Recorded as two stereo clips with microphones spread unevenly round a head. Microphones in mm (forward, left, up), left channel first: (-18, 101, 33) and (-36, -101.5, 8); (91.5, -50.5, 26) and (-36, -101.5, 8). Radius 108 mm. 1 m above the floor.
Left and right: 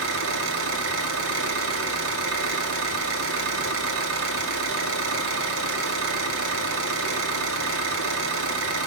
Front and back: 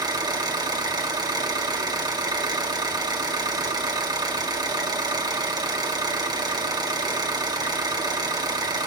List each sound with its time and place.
0.0 s an engine running: 100° right, 2 m